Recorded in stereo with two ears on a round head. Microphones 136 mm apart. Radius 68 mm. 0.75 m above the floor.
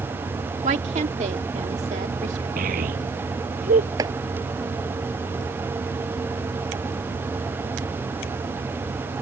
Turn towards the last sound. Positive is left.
turn(degrees=-25)  # may be behind; listen again after turning